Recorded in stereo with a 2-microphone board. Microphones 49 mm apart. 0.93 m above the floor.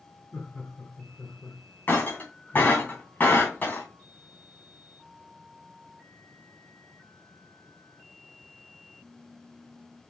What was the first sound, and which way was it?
Laughter, 45° left (ahead or behind).